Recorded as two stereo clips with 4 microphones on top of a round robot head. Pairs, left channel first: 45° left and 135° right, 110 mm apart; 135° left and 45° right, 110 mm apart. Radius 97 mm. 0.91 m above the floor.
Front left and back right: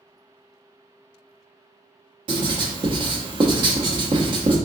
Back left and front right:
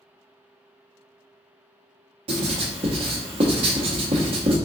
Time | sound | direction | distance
2.3 | writing | 90° right | 0.7 m